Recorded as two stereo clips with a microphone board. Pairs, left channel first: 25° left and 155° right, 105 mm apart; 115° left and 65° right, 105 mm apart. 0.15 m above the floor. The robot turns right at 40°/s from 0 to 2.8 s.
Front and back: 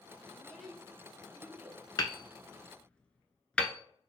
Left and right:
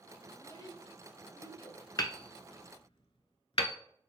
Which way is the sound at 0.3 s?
95° left.